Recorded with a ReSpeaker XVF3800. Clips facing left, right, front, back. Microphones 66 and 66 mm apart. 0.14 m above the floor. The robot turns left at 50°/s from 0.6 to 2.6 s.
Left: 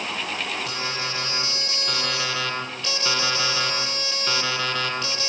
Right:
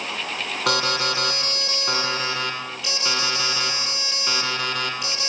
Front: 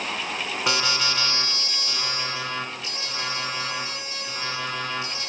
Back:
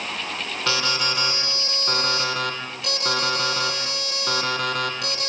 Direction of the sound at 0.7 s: 75° right.